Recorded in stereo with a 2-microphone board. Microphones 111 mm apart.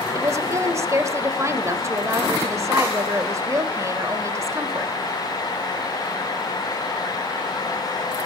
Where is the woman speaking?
25° right (ahead or behind), 1.3 m.